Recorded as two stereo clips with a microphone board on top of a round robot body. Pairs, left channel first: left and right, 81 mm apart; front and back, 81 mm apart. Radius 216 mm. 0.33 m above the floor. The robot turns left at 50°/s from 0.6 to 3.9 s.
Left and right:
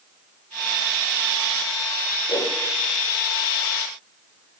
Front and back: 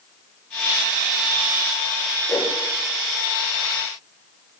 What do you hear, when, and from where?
2.3 s a whoosh: 65° left, 3 m; by 2.5 s 55° left, 3 m